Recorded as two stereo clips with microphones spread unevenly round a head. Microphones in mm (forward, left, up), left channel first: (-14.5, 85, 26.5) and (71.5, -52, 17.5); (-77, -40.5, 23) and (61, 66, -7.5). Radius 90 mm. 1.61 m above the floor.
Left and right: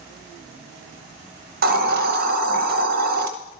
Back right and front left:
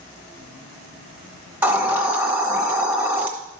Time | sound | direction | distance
1.6 | a hiss | 50° right | 1.0 m